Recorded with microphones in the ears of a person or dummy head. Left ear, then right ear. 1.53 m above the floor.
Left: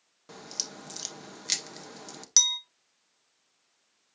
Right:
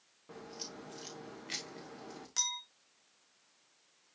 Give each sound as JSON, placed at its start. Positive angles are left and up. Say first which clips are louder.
{"t": 0.3, "sound": "a crack", "louder": "left 9 dB", "side_deg": 85, "distance_m": 1.1}
{"t": 2.4, "sound": "a clink", "louder": "left 12 dB", "side_deg": 40, "distance_m": 0.9}